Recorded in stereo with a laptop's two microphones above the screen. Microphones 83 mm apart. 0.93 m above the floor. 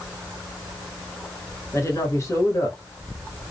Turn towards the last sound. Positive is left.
turn(degrees=40)  # may be behind; listen again after turning